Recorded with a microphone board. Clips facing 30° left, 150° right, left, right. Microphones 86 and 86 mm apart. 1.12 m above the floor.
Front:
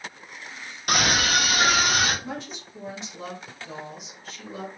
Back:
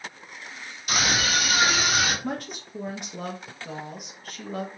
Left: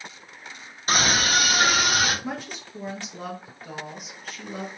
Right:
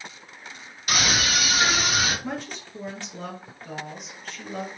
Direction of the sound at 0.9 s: 40° left.